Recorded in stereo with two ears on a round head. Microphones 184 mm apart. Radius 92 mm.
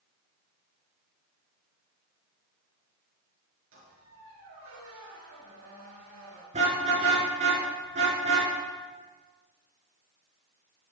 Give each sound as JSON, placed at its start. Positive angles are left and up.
{"t": 3.7, "sound": "a squeak", "side_deg": -75, "distance_m": 6.5}
{"t": 6.5, "sound": "a car horn", "side_deg": -35, "distance_m": 6.0}